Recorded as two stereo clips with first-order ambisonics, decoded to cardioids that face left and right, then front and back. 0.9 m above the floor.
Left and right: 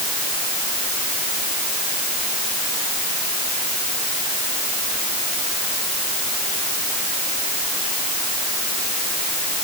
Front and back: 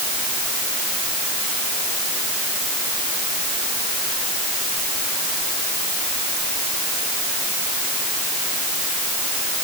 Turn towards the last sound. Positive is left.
No sound to turn to.